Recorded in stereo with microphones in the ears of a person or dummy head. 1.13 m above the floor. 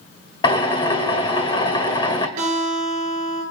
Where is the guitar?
40° right (ahead or behind), 10 m.